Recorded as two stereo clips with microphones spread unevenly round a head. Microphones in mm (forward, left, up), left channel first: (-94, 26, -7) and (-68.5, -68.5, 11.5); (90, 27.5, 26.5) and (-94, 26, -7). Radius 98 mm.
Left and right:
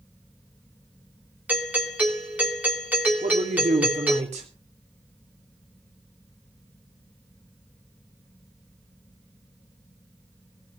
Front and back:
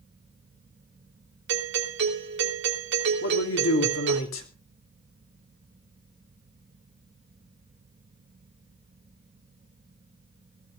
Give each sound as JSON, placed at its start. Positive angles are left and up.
{"t": 1.5, "sound": "a doorbell", "azimuth_deg": -150, "distance_m": 3.0}
{"t": 3.2, "sound": "a man speaking", "azimuth_deg": -30, "distance_m": 3.0}